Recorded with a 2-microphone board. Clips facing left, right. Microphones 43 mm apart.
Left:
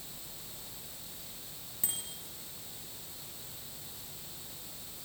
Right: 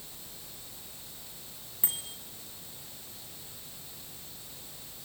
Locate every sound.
1.8 s a bicycle bell: 20° right (ahead or behind), 9 m